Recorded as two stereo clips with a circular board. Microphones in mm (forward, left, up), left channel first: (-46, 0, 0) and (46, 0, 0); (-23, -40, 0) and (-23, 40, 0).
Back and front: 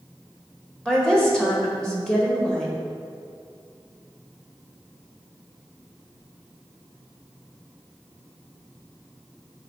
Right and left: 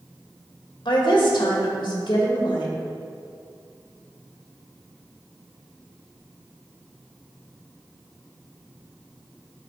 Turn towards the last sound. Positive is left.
turn(degrees=-100)